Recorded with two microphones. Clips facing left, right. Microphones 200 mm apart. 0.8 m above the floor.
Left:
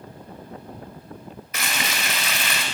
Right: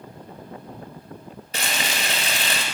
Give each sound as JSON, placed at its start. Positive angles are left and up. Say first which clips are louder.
{"t": 1.5, "sound": "frying", "louder": "right 1 dB", "side_deg": -35, "distance_m": 1.4}